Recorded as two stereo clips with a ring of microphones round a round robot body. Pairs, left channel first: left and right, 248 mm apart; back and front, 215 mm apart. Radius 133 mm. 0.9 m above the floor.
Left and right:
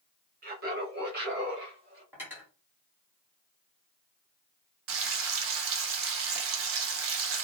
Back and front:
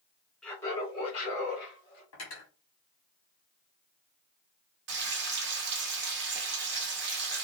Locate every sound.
0.4 s laughter: 95° right, 1.0 m; by 2.0 s 135° right, 1.9 m
2.1 s cutlery clinking: 175° right, 1.3 m
4.9 s frying: 50° right, 0.6 m